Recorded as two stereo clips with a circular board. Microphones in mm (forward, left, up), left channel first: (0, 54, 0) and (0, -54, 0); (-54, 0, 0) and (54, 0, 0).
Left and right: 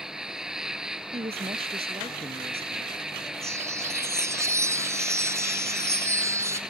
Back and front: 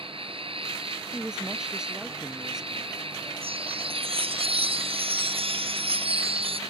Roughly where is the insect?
Ahead.